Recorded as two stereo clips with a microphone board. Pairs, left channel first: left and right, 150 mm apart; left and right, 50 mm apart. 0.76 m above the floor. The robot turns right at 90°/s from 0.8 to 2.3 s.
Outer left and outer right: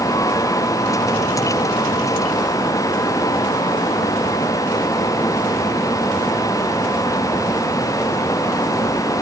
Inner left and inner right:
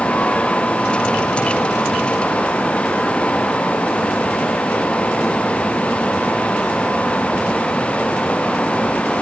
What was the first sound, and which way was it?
Only background noise.